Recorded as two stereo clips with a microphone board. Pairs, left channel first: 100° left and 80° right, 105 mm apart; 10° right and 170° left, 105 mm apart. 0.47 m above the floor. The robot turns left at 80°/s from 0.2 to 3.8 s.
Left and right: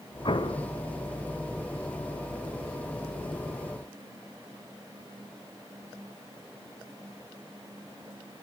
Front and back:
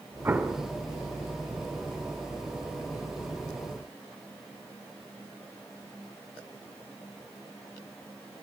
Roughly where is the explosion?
Left.